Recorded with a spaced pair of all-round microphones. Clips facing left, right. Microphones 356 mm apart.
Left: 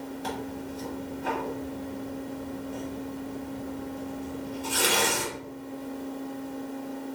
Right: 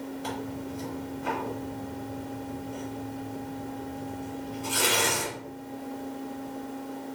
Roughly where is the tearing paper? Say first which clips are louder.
Even; centre.